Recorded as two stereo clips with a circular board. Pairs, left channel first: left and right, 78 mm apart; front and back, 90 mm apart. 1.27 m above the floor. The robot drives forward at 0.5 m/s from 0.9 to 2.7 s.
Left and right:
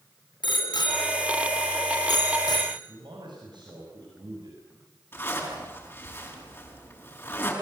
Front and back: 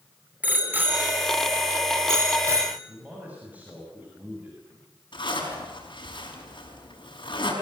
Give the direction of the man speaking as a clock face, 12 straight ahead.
4 o'clock.